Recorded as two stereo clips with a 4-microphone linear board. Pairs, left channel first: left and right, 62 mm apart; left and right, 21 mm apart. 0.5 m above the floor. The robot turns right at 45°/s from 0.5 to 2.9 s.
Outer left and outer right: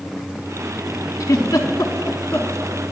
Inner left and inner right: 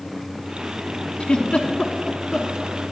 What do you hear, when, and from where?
1.2 s a giggle: 75° left (ahead or behind), 0.9 m; by 2.5 s 40° left (ahead or behind), 0.9 m